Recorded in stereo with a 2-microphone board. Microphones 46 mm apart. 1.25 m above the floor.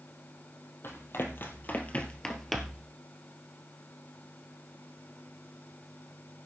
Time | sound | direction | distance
0.8 | running footsteps | 65° left (ahead or behind) | 3 m